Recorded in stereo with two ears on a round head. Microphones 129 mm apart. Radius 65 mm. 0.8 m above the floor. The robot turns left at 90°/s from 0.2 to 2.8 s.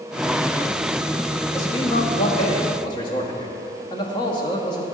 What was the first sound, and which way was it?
A man speaking, 155° left.